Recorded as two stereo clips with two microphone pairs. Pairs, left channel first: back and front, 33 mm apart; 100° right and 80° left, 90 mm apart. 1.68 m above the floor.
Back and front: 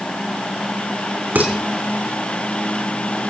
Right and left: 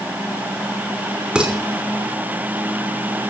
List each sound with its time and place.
1.4 s dishes clattering: straight ahead, 3 m